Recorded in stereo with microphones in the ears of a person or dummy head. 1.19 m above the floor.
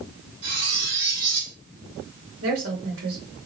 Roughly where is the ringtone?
No ringtone in this recording.